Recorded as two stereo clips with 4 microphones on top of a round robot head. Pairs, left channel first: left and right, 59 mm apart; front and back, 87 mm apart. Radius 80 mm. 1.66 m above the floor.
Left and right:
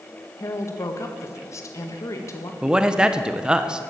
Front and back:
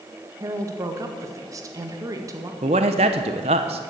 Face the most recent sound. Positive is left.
turn(degrees=-165)